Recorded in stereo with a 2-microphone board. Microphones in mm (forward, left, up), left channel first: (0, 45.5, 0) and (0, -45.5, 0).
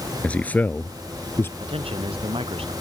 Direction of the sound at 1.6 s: 85° right.